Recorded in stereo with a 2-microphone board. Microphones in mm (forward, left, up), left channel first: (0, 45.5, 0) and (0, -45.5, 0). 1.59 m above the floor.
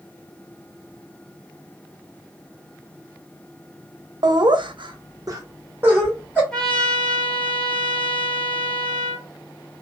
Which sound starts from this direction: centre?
A trumpet, at 6.5 s.